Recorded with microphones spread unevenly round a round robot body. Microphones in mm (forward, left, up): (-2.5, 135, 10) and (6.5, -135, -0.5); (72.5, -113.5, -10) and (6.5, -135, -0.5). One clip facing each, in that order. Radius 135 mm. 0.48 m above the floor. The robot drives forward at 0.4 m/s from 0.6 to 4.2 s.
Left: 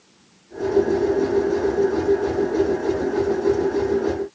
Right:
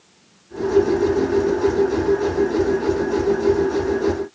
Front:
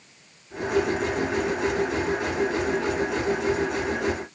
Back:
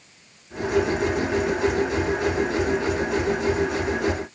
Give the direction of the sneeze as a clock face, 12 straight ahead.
No sneeze in this recording.